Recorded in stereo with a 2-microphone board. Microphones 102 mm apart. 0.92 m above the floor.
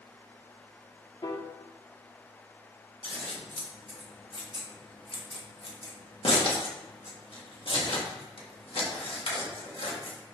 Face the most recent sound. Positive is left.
turn(degrees=65)  # may be behind; listen again after turning